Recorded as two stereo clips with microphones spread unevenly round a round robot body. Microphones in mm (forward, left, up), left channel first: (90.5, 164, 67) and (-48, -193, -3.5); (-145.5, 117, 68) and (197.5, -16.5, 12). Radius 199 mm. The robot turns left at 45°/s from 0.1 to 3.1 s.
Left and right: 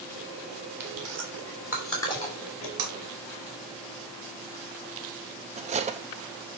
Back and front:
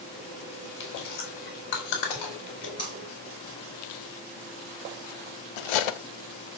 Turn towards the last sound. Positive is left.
turn(degrees=175)